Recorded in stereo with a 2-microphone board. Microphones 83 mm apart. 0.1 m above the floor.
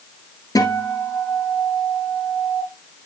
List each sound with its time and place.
0.6 s a guitar: 45° left (ahead or behind), 1.5 m